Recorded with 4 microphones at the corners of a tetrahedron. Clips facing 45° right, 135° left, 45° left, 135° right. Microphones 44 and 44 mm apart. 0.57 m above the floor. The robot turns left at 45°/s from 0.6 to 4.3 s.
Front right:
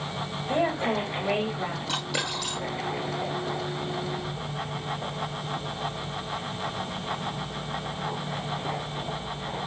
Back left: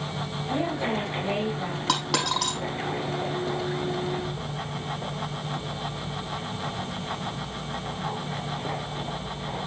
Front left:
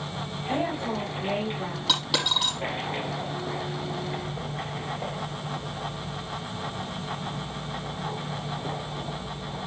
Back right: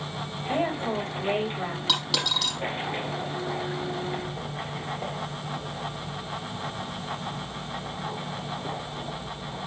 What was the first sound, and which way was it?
A woman speaking, 75° right.